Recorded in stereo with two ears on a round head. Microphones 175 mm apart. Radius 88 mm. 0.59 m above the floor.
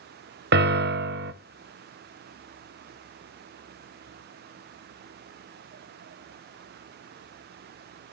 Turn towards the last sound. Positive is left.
turn(degrees=-55)  # may be behind; listen again after turning